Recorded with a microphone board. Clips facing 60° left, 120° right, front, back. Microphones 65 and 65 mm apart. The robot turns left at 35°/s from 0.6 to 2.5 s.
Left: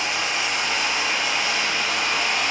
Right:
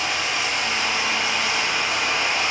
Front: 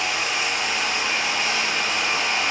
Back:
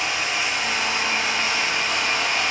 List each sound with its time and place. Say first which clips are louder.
0.0 s running water: even, even; straight ahead, 2 m; by 2.5 s 65° right, 2 m